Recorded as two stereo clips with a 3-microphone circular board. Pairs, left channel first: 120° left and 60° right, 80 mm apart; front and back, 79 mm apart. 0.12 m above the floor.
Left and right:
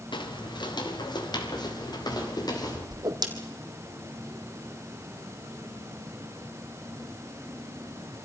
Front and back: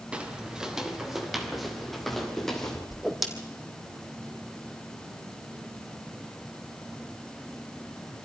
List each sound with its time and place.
0.1 s footsteps: 105° left, 3 m; by 2.8 s 85° left, 4.5 m
2.9 s a whoosh: 90° right, 2.5 m